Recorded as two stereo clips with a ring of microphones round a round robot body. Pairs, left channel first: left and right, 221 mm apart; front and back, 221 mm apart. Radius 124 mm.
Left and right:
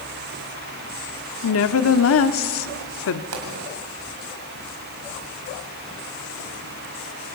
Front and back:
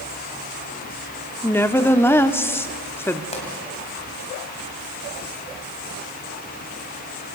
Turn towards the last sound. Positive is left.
turn(degrees=-65)